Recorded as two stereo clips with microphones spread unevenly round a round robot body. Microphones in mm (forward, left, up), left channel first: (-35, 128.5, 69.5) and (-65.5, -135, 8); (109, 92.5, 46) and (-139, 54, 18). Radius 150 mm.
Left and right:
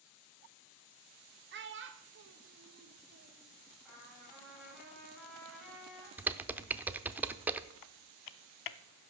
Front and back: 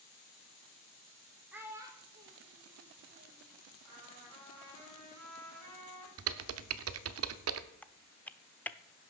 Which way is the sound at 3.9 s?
170° left.